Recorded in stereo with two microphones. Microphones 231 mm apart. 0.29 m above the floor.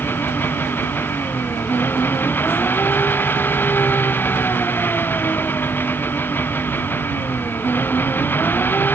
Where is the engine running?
10° left (ahead or behind).